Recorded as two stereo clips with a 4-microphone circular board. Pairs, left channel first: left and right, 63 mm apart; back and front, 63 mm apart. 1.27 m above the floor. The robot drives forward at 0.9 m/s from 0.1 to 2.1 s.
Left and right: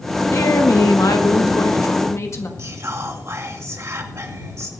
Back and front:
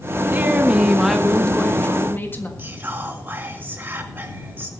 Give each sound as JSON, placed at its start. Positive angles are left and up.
{"t": 0.3, "sound": "a woman speaking", "azimuth_deg": 60, "distance_m": 1.5}
{"t": 2.6, "sound": "whispering", "azimuth_deg": -55, "distance_m": 1.9}